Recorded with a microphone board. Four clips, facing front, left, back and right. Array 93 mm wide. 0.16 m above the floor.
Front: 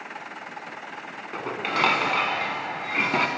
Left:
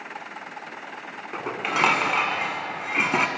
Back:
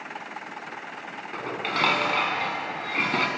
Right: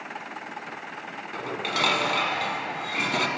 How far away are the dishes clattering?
About 0.8 m.